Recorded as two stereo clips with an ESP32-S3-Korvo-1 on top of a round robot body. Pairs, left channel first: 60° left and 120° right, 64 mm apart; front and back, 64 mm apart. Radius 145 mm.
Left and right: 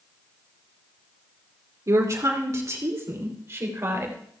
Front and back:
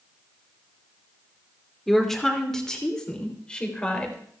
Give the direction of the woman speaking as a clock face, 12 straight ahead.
3 o'clock.